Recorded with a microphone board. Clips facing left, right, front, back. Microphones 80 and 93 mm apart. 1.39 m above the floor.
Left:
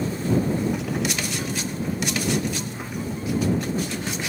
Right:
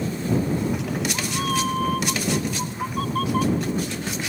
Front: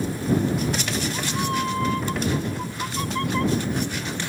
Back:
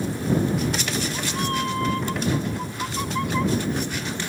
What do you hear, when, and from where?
0.6 s a cat meowing: 80° right; by 4.0 s 100° right